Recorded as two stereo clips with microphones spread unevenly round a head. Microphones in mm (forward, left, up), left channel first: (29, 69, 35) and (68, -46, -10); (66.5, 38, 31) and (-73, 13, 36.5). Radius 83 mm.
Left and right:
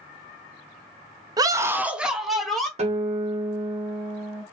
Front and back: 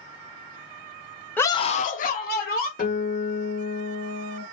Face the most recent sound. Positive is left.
turn(degrees=-30)